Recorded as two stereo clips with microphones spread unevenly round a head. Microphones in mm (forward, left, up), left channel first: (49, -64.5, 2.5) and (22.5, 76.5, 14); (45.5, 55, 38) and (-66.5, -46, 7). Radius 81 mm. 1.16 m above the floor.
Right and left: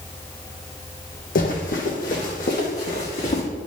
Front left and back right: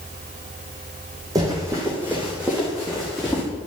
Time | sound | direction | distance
1.4 | running footsteps | 65° right | 2 m